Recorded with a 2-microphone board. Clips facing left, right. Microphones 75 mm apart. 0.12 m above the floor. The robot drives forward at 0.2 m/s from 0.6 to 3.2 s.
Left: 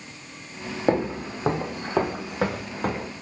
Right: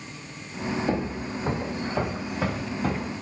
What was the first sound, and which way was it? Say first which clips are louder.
Footsteps: left 4 dB; 55° left (ahead or behind).